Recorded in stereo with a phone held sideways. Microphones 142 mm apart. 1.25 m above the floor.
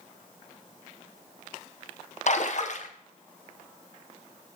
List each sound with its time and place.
2.3 s a splash: 55° left (ahead or behind), 0.9 m